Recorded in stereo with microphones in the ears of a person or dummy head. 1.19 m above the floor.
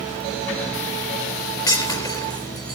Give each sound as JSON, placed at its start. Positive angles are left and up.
{"t": 1.7, "sound": "breaking glass", "side_deg": 20, "distance_m": 4.5}